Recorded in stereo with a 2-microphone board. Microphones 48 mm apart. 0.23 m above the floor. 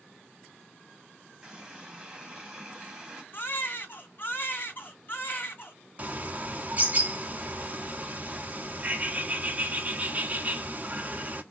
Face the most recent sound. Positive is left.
turn(degrees=-30)  # may be behind; listen again after turning